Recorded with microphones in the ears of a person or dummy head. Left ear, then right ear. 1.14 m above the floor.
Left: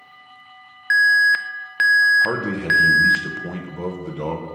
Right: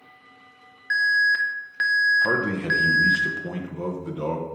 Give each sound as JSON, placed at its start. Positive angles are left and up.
{"t": 0.9, "sound": "an alarm", "side_deg": 35, "distance_m": 0.5}
{"t": 2.2, "sound": "a man speaking", "side_deg": 10, "distance_m": 1.3}